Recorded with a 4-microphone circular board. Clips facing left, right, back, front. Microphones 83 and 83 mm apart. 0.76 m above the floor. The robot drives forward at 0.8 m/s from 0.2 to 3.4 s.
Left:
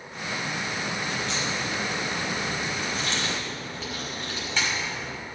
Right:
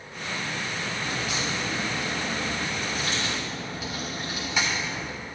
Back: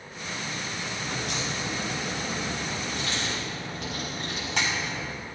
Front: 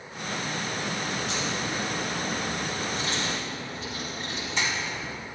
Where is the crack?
165° right, 4 m; by 5.1 s 170° right, 6 m.